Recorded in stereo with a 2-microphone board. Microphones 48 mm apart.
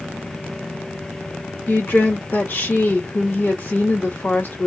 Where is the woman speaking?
45° left (ahead or behind), 1.0 m.